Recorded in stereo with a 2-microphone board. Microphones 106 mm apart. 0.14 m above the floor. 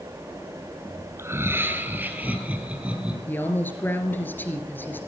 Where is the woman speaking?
20° left (ahead or behind), 2.5 m.